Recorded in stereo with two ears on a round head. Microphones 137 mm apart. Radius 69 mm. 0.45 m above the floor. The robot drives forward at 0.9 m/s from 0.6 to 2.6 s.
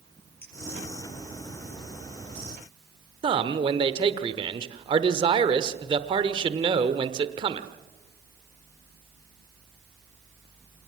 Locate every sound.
0.4 s a clink: 15° left (ahead or behind), 6.5 m
3.2 s a man speaking: 35° right (ahead or behind), 1.2 m